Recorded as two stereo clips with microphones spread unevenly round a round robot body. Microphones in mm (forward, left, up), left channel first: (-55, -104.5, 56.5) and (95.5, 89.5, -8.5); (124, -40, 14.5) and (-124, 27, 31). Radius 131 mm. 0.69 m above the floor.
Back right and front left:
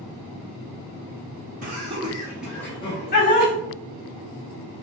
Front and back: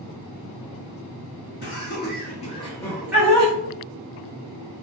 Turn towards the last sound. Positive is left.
turn(degrees=-130)